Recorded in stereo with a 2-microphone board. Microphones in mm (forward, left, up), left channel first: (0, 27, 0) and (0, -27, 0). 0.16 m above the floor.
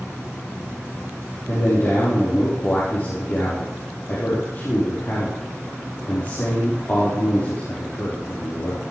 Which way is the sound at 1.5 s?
45° left (ahead or behind).